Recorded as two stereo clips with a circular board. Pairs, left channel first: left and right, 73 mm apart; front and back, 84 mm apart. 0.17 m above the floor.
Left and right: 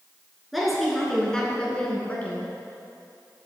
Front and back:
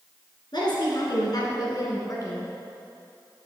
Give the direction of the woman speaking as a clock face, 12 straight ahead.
12 o'clock.